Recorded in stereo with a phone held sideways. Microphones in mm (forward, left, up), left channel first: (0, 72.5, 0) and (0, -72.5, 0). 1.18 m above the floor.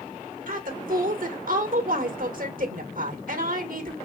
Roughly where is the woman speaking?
Right.